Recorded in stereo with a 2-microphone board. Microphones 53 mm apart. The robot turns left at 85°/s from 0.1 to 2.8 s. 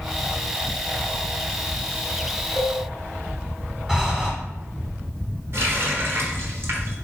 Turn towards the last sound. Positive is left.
turn(degrees=-55)  # may be behind; listen again after turning